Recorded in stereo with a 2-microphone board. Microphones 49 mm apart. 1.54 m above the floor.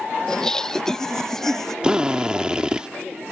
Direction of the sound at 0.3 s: 15° left (ahead or behind).